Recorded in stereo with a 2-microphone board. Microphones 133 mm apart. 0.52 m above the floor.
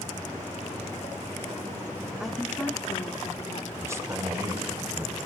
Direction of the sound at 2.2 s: 5° right (ahead or behind).